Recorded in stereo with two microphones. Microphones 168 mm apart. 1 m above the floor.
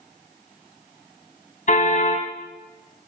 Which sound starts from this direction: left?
A car horn, at 1.7 s.